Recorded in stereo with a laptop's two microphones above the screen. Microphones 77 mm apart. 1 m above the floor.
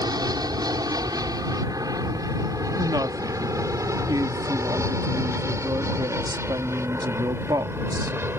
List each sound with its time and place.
0.0 s an aircraft: 60° right (ahead or behind); by 8.4 s 30° right (ahead or behind)
2.8 s a woman speaking: 55° right (ahead or behind)